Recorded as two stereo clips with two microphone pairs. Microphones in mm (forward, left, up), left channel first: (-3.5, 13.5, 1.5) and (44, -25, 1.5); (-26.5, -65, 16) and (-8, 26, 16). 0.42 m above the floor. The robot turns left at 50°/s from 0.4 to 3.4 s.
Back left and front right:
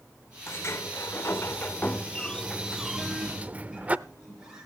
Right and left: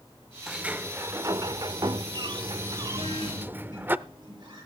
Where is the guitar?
60° left, 9 m; by 4.7 s 40° left, 9 m.